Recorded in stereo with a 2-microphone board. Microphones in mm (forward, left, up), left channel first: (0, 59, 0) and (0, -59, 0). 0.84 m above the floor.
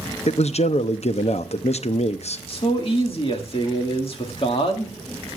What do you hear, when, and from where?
0.3 s a man speaking: 65° left (ahead or behind), 0.7 m
2.5 s a man speaking: 55° left (ahead or behind), 1.7 m